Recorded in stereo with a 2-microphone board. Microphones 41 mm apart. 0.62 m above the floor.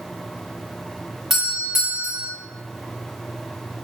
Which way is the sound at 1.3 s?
10° right (ahead or behind).